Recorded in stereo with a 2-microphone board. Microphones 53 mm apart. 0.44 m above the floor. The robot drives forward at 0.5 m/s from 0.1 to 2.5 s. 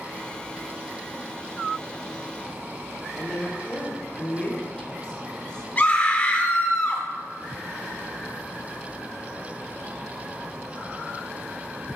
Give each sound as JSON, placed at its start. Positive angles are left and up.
{"t": 3.2, "sound": "a woman speaking", "side_deg": 15, "distance_m": 1.0}
{"t": 5.8, "sound": "a scream", "side_deg": 30, "distance_m": 0.9}